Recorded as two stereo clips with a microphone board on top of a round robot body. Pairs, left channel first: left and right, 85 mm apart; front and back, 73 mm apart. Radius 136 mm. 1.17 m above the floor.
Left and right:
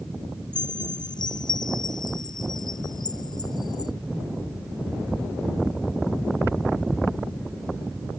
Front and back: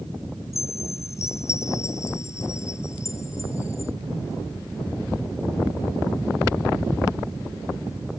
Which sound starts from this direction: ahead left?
A chime, at 0.5 s.